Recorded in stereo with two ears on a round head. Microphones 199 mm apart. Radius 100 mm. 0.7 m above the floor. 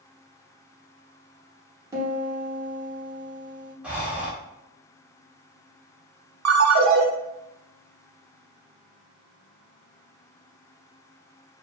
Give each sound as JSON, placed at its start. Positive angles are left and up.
{"t": 1.9, "sound": "a piano", "side_deg": -15, "distance_m": 0.8}
{"t": 3.8, "sound": "breathing", "side_deg": -5, "distance_m": 0.6}
{"t": 6.5, "sound": "a ringtone", "side_deg": -80, "distance_m": 0.5}